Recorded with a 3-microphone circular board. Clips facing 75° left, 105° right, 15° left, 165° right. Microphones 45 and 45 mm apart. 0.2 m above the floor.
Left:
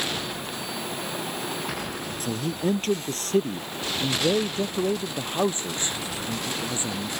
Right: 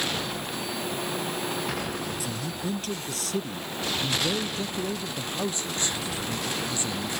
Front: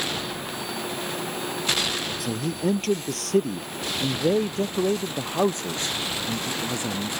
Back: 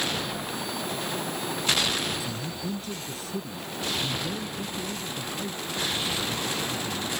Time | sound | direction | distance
2.2 | a man speaking | 35° left | ?